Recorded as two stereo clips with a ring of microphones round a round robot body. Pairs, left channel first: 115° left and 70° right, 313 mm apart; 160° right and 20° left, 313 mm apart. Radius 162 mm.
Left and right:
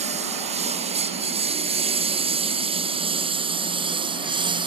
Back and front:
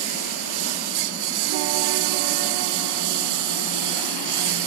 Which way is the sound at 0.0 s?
5° left.